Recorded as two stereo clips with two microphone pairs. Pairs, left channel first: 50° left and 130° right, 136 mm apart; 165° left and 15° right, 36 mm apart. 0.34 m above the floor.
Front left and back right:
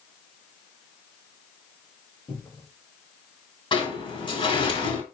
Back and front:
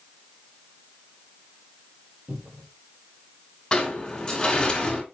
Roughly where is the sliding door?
Left.